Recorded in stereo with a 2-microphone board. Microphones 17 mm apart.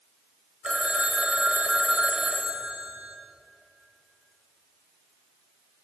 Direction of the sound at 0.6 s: 80° right.